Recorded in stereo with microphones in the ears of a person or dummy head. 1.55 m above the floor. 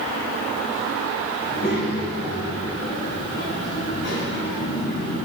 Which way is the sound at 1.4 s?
30° left (ahead or behind).